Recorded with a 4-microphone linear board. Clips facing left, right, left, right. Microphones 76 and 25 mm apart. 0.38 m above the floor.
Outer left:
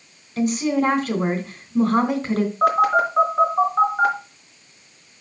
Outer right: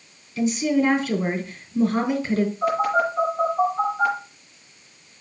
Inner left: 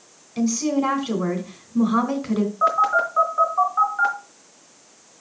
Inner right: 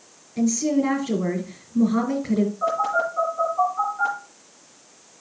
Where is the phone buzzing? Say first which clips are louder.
Outer left 7 dB, inner left 4 dB; 75° left (ahead or behind), 4 m.